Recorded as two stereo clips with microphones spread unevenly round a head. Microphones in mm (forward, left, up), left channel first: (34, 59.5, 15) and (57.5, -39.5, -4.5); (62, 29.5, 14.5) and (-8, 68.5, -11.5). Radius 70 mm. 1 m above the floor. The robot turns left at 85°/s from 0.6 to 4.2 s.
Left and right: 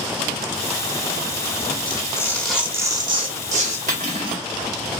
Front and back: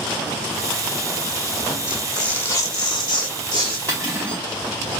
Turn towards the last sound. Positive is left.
turn(degrees=-130)